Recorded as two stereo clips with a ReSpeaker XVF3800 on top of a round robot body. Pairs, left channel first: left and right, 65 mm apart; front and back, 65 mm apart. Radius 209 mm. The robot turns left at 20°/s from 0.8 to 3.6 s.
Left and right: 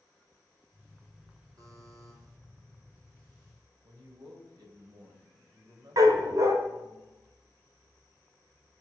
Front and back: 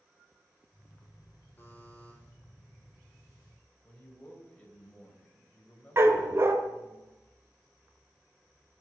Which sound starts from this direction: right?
A man speaking, at 3.8 s.